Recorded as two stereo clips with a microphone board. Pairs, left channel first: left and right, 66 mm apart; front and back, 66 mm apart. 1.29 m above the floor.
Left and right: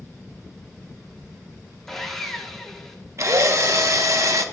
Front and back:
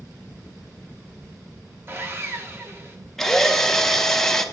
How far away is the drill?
About 0.5 m.